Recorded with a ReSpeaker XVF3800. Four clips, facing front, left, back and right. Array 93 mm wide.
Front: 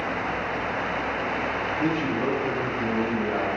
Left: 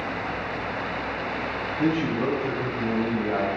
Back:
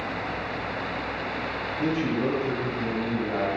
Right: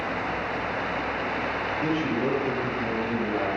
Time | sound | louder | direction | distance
1.8 | a man speaking | left 3 dB, back 1 dB | 80° left | 4.5 m